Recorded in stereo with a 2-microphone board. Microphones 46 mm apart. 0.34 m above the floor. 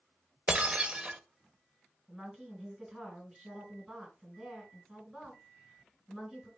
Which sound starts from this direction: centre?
A woman speaking, at 2.1 s.